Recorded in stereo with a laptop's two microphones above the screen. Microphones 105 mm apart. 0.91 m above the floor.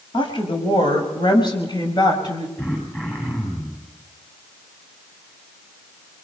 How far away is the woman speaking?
About 7 m.